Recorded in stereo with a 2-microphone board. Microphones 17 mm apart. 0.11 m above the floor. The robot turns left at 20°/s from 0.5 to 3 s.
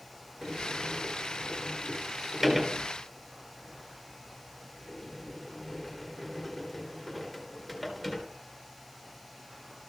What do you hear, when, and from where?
0.4 s a sliding door: 30° right (ahead or behind), 1.8 m; by 8.2 s centre (ahead or behind), 1.8 m